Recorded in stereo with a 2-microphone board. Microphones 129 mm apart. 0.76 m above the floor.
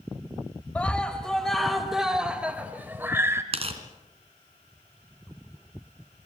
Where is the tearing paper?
50° right (ahead or behind), 3 m.